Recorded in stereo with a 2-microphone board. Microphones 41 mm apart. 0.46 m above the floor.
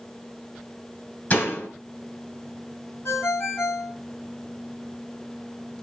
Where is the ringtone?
75° left (ahead or behind), 2.5 m.